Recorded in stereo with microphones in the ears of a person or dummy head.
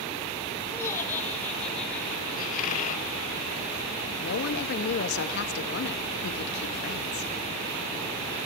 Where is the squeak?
45° left (ahead or behind), 1.2 m.